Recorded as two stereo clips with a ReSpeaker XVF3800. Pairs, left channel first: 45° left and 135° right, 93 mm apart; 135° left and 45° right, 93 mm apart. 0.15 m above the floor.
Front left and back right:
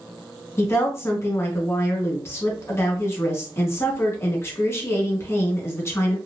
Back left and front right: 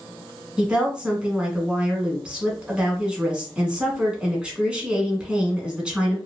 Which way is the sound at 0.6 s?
25° left.